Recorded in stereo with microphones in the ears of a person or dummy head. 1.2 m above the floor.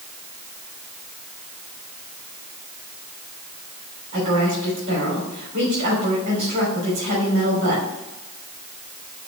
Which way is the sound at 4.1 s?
45° right (ahead or behind).